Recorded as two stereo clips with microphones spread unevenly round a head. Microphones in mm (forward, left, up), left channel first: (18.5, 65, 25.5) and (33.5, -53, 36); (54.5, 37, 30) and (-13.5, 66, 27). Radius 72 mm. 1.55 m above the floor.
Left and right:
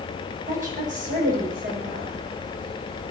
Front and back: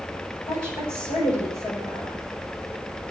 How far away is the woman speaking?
About 7 m.